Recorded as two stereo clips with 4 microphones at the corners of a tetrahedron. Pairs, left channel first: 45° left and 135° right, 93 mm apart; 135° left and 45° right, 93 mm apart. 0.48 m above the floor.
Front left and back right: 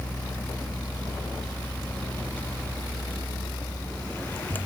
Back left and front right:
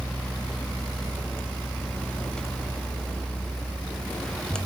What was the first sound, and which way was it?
Only background noise.